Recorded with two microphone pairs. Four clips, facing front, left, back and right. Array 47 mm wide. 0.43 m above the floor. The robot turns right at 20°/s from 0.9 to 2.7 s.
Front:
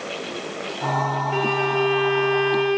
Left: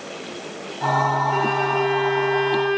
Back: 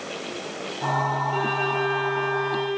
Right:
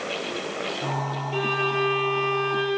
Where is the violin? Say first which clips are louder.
Left 4 dB, front 3 dB; 35° left, 6 m; by 2.8 s 60° left, 6 m.